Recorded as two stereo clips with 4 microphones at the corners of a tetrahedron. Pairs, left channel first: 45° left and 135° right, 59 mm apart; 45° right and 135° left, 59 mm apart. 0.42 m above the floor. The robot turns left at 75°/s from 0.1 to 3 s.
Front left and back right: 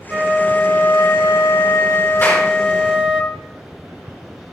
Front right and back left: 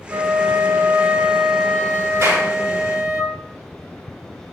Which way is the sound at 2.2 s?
100° left.